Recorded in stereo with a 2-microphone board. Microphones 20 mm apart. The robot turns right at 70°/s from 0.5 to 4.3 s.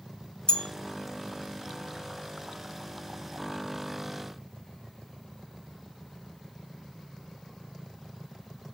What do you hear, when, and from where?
0.5 s a bell: 35° left (ahead or behind), 1.7 m; by 0.7 s 40° left (ahead or behind), 1.7 m